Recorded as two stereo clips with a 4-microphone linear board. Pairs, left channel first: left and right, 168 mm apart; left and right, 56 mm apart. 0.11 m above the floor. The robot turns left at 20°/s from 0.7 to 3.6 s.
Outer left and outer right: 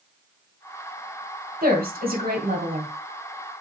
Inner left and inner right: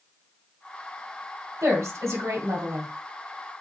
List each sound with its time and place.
1.6 s a woman speaking: 60° right (ahead or behind), 2.5 m; by 2.9 s 50° right (ahead or behind), 2.5 m